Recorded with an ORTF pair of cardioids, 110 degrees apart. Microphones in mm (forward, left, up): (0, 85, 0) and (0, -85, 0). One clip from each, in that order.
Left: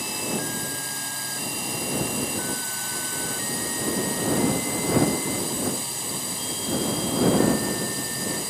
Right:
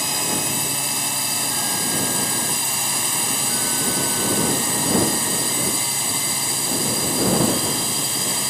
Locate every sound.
0.0 s a drone: 45° right